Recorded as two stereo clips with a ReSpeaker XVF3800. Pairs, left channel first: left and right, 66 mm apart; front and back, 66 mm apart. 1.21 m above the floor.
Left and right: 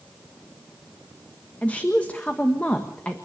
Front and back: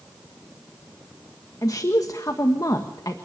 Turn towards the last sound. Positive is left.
turn(degrees=20)